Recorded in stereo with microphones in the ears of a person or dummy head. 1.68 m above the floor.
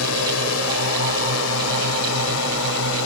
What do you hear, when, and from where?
0.0 s a drone: 85° left; by 3.1 s 70° left (ahead or behind)